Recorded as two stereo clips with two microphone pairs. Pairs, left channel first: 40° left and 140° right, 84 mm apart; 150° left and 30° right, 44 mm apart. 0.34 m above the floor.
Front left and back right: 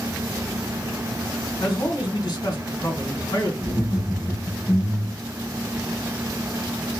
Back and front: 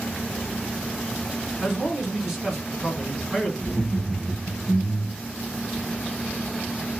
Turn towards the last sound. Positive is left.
turn(degrees=75)